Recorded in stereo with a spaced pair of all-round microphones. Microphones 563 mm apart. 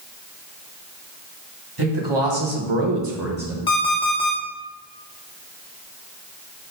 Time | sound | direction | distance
1.8 | a man speaking | 40° right (ahead or behind) | 2 m
3.7 | an alarm clock | 40° left (ahead or behind) | 1.4 m